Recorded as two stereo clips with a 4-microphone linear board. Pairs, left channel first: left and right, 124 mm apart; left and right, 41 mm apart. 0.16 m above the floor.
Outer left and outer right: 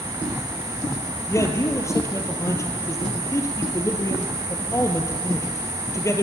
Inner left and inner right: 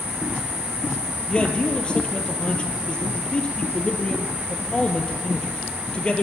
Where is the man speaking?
25° left (ahead or behind), 3.5 m.